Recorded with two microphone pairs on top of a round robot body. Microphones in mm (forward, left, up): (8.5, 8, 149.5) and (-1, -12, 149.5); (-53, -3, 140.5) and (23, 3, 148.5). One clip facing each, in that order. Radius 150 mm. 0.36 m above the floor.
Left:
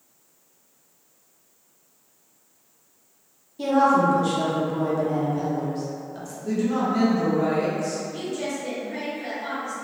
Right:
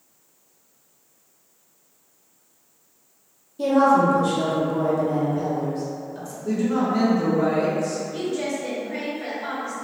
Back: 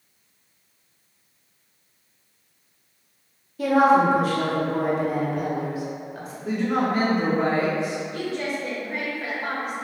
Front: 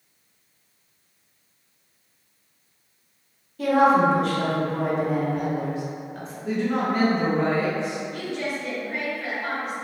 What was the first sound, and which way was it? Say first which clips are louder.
A woman speaking: right 2 dB, back 1 dB; 120° left.